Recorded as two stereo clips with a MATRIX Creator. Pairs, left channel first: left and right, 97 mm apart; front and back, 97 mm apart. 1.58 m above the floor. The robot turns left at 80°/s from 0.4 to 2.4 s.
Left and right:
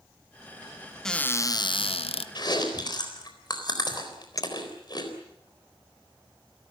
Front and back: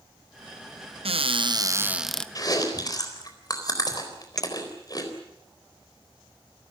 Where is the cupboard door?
175° left, 0.8 m; by 2.2 s 80° left, 0.8 m.